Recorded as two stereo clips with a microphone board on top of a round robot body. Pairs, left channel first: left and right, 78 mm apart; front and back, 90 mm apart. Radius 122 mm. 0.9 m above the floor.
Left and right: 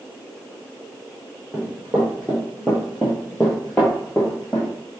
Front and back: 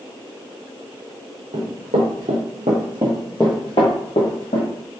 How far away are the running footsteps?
About 1.9 m.